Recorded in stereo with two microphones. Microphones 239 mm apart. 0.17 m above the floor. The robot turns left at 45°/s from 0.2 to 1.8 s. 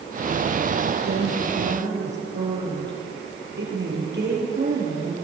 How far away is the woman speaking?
About 4.5 m.